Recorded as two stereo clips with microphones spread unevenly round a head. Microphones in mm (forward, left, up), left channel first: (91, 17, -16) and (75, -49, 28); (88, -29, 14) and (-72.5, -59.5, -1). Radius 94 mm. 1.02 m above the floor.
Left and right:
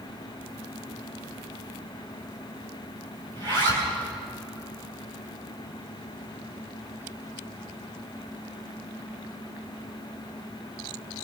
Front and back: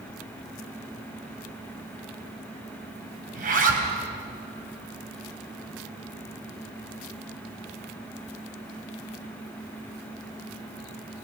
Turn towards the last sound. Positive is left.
turn(degrees=-135)